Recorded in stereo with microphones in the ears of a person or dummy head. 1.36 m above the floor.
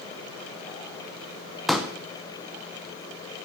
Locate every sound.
1.7 s a pop: centre (ahead or behind), 0.6 m